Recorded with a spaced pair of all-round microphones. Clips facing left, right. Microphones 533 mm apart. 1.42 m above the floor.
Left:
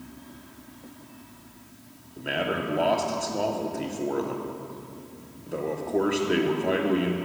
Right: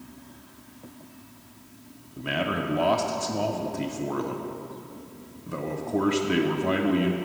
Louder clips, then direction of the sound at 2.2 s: Even; 30° right (ahead or behind).